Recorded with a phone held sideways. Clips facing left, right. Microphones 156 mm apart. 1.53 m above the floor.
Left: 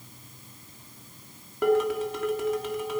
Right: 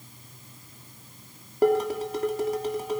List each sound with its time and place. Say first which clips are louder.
1.6 s dishes clattering: right 1 dB; 40° right (ahead or behind), 2.5 m